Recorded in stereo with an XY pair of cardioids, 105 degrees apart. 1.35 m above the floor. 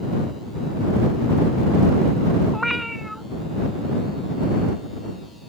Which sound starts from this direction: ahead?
A cat meowing, at 2.5 s.